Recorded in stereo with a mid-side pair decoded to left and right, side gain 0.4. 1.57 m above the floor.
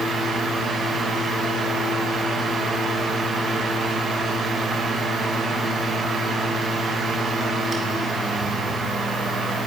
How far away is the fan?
About 4 m.